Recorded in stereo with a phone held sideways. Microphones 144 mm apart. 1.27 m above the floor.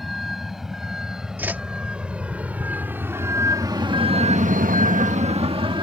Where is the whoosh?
15° right (ahead or behind).